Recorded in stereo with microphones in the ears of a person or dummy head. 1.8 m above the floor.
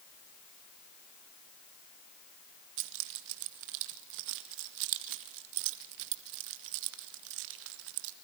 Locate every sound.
2.8 s keys jangling: 75° right (ahead or behind), 2 m